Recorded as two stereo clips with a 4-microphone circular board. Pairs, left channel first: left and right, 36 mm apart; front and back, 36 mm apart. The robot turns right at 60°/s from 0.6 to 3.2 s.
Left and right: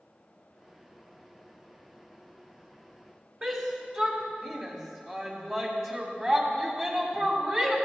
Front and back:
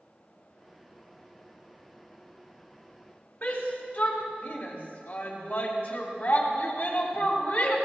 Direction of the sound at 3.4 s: 45° right.